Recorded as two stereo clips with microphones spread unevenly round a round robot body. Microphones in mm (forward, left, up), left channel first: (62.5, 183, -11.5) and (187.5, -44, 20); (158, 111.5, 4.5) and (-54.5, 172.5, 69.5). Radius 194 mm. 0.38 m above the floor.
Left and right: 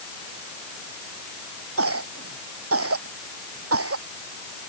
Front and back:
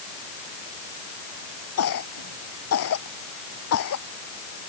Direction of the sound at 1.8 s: 30° right.